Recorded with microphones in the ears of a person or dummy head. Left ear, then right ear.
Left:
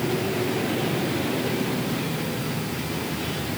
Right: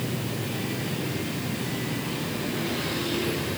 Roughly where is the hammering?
I don't hear hammering.